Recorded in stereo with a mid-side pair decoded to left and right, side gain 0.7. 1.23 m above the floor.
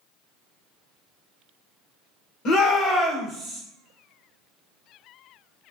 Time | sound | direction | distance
2.5 | a shout | 55° left | 0.9 m